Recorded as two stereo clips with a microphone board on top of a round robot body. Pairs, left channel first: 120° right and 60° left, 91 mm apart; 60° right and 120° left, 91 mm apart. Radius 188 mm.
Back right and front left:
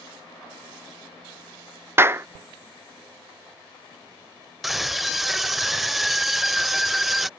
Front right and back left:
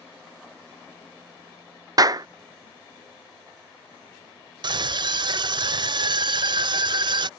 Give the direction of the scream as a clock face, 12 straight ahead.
7 o'clock.